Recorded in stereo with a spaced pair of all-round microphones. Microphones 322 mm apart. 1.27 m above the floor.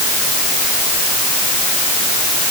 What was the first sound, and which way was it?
Only background noise.